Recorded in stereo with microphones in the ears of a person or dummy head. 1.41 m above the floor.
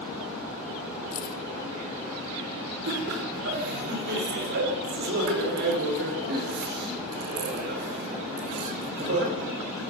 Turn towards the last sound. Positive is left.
turn(degrees=-55)  # may be behind; listen again after turning